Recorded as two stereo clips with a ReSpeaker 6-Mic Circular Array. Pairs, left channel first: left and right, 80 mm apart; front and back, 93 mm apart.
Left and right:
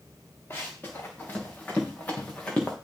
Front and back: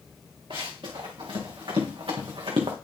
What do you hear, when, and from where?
0.5 s running footsteps: 155° left, 3.5 m; by 2.8 s 165° left, 2 m